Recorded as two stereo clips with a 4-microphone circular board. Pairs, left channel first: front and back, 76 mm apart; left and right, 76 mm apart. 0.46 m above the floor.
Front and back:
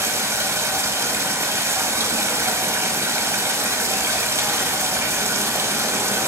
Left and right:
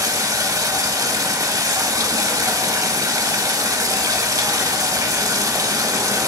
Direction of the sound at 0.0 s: 130° right.